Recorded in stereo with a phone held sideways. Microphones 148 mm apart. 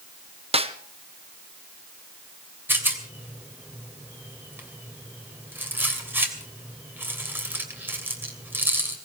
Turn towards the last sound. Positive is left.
turn(degrees=-15)  # may be behind; listen again after turning